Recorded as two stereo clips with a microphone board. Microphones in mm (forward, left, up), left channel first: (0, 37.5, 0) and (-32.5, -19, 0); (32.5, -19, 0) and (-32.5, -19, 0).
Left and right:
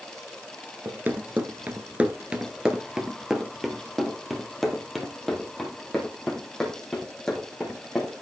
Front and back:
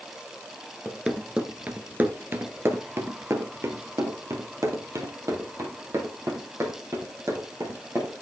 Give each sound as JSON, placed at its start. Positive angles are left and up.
{"t": 0.8, "sound": "running footsteps", "azimuth_deg": -105, "distance_m": 1.5}